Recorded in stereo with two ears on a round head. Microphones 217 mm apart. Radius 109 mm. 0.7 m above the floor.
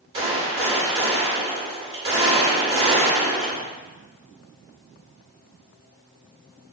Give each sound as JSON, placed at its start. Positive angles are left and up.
{"t": 0.1, "sound": "a gunshot", "side_deg": -25, "distance_m": 2.5}